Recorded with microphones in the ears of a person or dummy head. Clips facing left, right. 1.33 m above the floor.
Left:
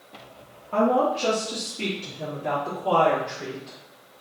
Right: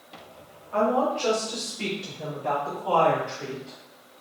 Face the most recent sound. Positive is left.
turn(degrees=30)  # may be behind; listen again after turning